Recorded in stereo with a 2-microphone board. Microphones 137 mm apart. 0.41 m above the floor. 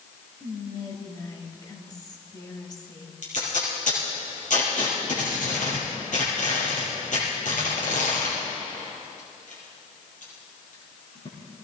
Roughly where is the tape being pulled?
Left.